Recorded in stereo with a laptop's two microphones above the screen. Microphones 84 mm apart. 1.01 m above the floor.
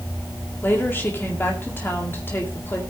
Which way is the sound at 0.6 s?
25° left (ahead or behind).